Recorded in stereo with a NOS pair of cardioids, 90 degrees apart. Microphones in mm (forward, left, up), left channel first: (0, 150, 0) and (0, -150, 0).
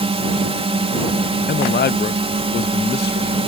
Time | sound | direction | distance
0.0 | a drone | 20° right | ?
1.5 | a man speaking | 35° left | ?